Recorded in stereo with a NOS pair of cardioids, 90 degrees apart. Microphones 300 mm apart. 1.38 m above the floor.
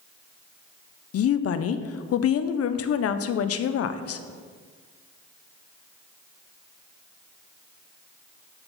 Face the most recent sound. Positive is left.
turn(degrees=55)